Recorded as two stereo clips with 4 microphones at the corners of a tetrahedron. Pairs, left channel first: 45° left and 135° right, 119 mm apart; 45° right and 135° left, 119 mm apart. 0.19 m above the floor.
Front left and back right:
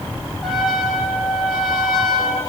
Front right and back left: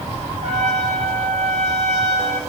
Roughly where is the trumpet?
Behind left.